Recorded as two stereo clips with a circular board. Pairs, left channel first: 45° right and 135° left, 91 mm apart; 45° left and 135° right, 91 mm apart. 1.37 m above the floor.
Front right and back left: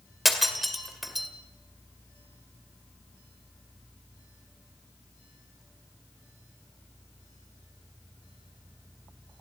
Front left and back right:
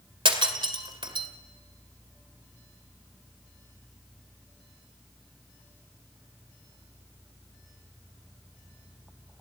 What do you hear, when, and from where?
0.2 s breaking glass: 135° right, 2 m